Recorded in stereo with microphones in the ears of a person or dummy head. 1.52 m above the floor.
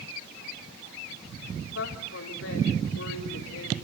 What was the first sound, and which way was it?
A woman speaking, 85° left.